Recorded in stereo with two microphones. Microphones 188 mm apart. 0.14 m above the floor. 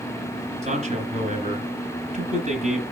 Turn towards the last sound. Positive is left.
turn(degrees=-45)  # may be behind; listen again after turning